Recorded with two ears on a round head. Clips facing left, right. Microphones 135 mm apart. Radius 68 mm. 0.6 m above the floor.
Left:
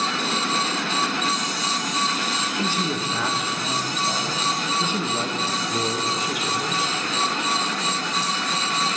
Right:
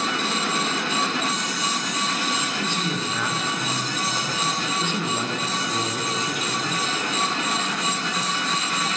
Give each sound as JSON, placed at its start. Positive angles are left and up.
{"t": 2.6, "sound": "a man speaking", "side_deg": 10, "distance_m": 0.5}